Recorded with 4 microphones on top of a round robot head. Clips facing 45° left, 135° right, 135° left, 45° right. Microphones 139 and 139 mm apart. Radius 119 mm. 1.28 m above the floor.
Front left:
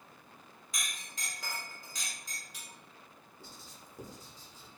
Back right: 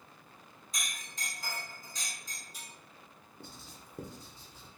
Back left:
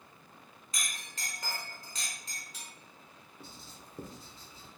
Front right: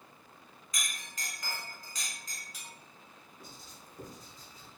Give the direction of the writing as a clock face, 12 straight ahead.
5 o'clock.